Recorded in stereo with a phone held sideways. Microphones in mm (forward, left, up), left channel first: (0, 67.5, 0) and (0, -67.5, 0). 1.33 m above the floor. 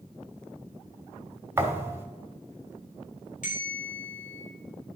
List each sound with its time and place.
1.6 s a thud: 20° right (ahead or behind), 1.1 m
3.4 s a bell: 70° left (ahead or behind), 3 m